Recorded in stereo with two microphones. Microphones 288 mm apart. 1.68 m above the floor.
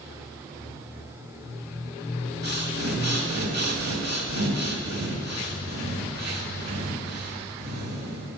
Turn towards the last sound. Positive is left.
turn(degrees=-65)  # may be behind; listen again after turning